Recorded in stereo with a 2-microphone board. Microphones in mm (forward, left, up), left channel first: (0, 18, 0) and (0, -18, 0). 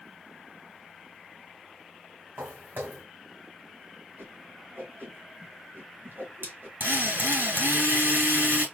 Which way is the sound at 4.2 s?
70° right (ahead or behind).